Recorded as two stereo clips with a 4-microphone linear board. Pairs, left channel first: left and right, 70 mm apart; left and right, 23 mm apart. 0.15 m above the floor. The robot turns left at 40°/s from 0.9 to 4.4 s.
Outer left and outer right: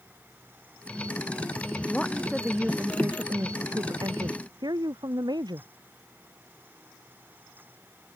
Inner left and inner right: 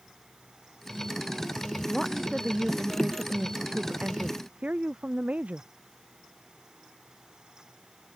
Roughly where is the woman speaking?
Ahead.